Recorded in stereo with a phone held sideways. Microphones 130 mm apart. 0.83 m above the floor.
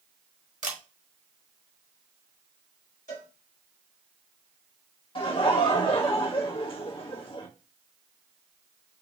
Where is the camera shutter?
75° right (ahead or behind), 1.4 m.